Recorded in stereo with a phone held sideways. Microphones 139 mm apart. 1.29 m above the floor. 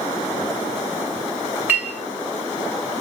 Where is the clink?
10° right (ahead or behind), 2.5 m.